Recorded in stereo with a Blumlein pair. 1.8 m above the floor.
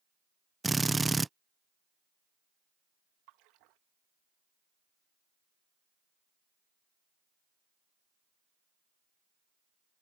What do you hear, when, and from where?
0.6 s a drill: 10° right
3.3 s a splash: 40° right